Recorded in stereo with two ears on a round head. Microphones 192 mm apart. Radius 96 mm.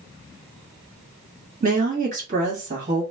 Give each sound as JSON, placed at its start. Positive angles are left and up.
{"t": 1.6, "sound": "a woman speaking", "side_deg": -35, "distance_m": 1.2}